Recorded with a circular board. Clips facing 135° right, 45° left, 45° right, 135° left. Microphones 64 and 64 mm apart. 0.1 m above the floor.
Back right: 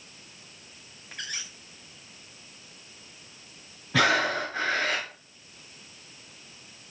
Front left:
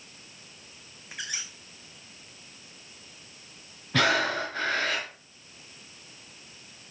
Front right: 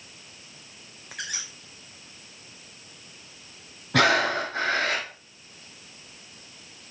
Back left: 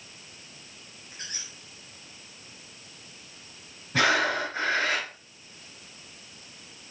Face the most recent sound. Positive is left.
turn(degrees=-45)